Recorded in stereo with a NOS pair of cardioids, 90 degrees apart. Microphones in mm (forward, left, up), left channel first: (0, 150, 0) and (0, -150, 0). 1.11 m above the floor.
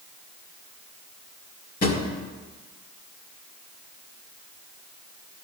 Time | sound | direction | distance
1.8 | a drawer | 30° left | 1.7 m